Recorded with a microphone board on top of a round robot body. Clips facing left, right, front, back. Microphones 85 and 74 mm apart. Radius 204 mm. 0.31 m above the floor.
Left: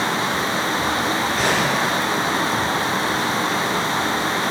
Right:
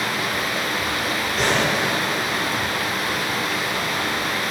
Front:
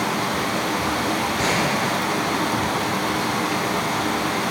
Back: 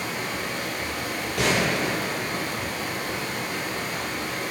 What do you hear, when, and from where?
0.0 s running water: 30° left, 1.0 m
1.4 s a gunshot: 175° left, 5 m